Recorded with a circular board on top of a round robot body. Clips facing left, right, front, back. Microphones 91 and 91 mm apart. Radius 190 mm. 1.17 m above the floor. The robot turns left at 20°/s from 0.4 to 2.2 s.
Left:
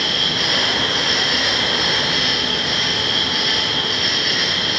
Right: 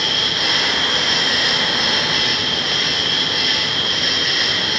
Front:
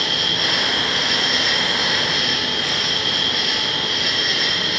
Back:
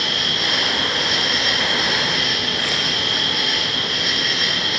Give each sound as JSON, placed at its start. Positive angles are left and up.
{"t": 0.0, "sound": "an insect", "azimuth_deg": -40, "distance_m": 0.9}